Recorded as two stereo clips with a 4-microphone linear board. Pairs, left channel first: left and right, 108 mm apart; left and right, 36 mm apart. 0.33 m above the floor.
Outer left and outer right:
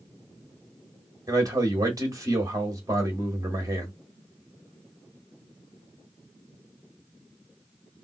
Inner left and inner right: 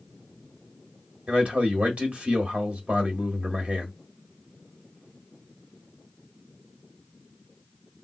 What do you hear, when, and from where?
1.3 s a man speaking: 35° right (ahead or behind), 1.4 m